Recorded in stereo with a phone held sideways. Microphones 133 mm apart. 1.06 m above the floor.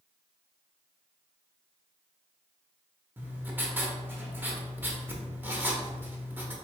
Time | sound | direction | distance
3.2 | writing | 15° right (ahead or behind) | 0.9 m